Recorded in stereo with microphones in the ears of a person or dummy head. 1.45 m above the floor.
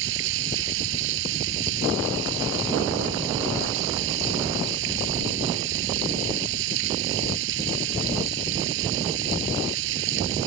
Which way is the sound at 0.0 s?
70° right (ahead or behind).